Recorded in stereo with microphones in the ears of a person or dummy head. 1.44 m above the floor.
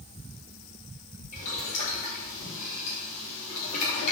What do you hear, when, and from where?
1.3 s boiling: 45° left (ahead or behind), 3.5 m